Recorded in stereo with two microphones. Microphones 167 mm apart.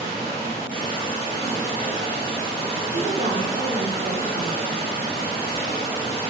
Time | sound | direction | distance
0.0 | running water | 30° left (ahead or behind) | 1.3 m
2.9 | a woman speaking | 55° right (ahead or behind) | 0.5 m